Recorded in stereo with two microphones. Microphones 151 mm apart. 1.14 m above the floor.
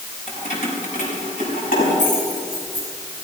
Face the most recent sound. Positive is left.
turn(degrees=60)  # may be behind; listen again after turning